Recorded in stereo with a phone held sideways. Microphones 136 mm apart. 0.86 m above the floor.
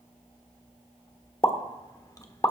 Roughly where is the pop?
Left.